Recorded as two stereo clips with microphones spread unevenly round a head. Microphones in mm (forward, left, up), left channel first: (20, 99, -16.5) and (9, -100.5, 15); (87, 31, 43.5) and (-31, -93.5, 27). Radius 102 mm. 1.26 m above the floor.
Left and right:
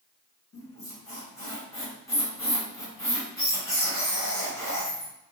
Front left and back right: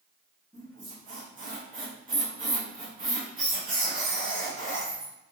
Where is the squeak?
165° left, 1.4 m.